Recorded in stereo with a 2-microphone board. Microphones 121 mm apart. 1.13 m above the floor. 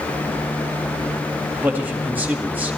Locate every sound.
1.6 s a man speaking: 15° right (ahead or behind), 1.8 m